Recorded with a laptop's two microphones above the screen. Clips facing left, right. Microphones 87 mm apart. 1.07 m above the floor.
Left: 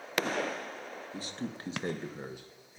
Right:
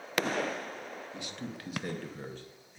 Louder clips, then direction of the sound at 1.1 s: Left 2 dB; 35° left (ahead or behind).